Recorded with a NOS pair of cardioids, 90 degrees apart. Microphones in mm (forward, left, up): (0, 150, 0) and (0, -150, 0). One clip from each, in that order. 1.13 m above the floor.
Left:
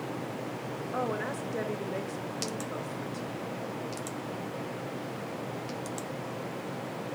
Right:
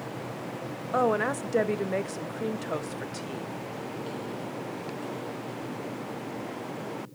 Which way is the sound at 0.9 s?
40° right.